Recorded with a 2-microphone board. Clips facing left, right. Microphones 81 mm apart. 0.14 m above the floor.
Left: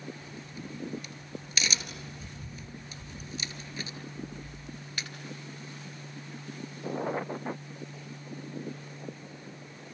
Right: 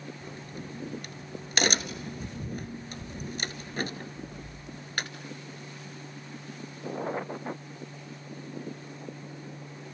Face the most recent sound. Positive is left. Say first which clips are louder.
# right 2 dB
turn(degrees=-55)  # may be behind; listen again after turning